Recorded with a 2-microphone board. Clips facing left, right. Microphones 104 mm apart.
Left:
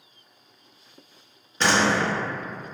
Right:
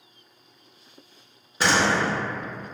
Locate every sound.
1.6 s a door slam: 10° right (ahead or behind), 0.6 m